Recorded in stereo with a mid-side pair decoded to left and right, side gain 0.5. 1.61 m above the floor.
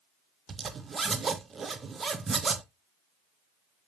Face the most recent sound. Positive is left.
turn(degrees=-30)